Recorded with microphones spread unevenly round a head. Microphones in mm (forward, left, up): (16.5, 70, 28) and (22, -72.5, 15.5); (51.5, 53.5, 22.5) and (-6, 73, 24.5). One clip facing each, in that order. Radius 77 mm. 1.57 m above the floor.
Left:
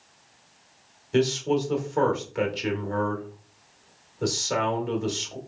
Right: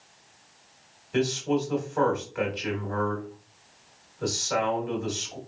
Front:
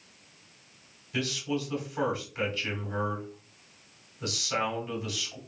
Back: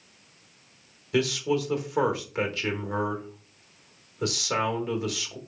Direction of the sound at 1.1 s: 150° left.